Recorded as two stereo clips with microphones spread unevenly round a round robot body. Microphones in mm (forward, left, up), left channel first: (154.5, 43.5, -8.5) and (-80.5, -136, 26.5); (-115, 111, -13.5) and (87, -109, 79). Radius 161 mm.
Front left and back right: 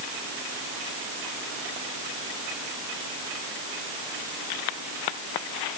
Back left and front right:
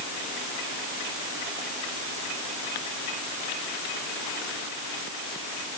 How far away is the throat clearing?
No throat clearing in this recording.